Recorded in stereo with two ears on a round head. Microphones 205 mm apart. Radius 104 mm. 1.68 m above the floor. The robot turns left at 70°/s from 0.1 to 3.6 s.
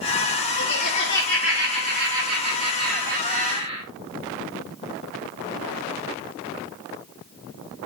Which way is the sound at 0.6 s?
60° left.